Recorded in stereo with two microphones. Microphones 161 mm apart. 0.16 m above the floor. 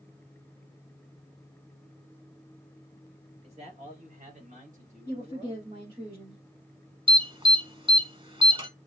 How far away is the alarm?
About 1.2 m.